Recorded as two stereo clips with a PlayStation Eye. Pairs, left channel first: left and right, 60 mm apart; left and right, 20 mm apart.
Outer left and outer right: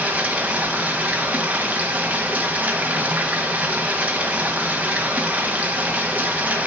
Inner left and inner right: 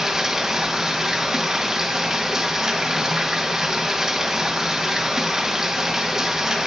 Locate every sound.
0.0 s running water: 25° right (ahead or behind), 1.5 m